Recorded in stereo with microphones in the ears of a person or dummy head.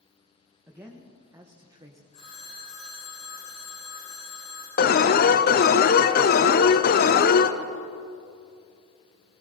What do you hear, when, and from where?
0.7 s a man speaking: 10° right (ahead or behind), 2 m; by 2.0 s 20° right (ahead or behind), 1.5 m
2.1 s a phone ringing: 35° left (ahead or behind), 8.5 m
4.8 s an alarm: 45° left (ahead or behind), 1.1 m